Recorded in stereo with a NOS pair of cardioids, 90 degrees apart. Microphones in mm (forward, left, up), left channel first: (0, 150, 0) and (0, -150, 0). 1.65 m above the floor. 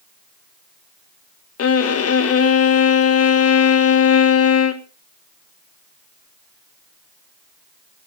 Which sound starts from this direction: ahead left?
A violin, at 1.6 s.